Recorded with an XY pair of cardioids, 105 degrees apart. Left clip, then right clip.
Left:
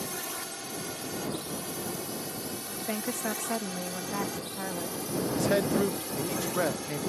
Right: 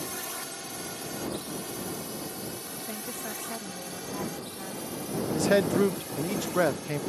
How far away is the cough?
I don't hear a cough.